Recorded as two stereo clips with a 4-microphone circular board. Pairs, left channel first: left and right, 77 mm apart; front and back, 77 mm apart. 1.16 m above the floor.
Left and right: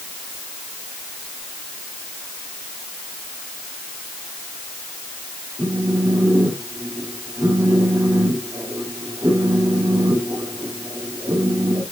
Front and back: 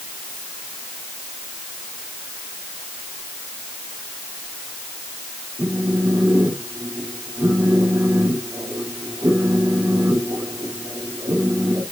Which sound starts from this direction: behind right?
A phone buzzing, at 5.6 s.